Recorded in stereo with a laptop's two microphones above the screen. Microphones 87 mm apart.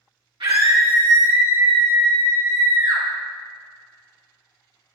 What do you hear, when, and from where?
0.4 s a scream: 75° right (ahead or behind), 1.4 m; by 3.0 s 35° right (ahead or behind), 2 m